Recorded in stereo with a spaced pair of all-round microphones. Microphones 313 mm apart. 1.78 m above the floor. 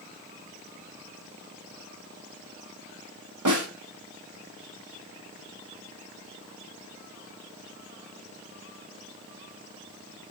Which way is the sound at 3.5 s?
80° right.